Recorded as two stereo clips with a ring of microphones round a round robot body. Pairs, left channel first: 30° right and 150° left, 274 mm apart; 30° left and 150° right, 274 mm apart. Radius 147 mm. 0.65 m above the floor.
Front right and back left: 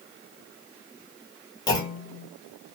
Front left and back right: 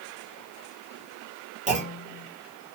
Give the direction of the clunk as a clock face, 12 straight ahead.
3 o'clock.